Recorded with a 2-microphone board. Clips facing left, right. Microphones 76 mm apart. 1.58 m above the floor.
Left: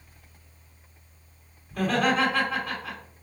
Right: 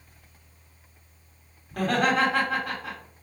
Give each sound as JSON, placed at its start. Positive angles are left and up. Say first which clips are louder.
{"t": 1.7, "sound": "laughter", "louder": "even", "side_deg": -85, "distance_m": 1.5}